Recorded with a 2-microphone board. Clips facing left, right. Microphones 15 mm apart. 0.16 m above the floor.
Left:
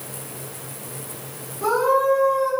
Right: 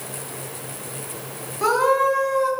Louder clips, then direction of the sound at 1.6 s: Right 1 dB; 55° right (ahead or behind).